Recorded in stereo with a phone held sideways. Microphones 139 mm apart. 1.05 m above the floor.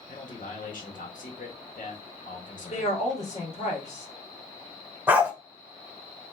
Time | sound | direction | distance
0.1 | a man speaking | 70° left (ahead or behind) | 1.3 m
2.7 | a woman speaking | 55° left (ahead or behind) | 2 m
5.1 | a dog barking | 15° right (ahead or behind) | 1.1 m